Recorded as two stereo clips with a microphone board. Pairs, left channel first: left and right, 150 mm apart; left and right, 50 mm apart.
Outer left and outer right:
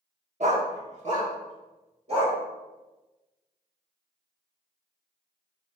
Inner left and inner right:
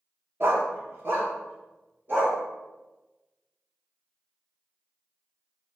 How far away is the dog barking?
About 0.7 m.